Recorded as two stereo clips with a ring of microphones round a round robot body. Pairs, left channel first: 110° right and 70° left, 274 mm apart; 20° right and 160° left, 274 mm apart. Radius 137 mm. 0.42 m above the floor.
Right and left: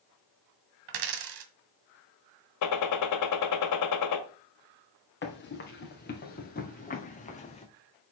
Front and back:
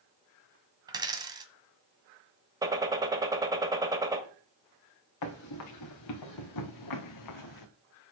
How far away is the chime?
I don't hear a chime.